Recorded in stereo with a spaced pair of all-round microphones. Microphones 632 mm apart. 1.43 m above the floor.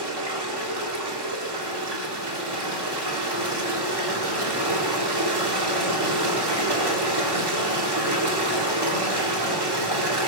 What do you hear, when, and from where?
0.0 s running water: 40° right (ahead or behind), 2.5 m